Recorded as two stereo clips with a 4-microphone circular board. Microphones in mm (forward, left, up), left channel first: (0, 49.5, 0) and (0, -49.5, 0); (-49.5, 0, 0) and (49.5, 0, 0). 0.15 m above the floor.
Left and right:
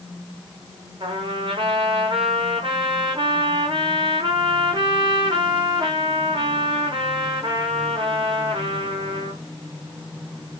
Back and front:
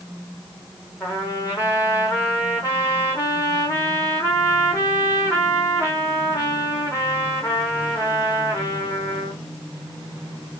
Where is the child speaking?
No child speaking in this recording.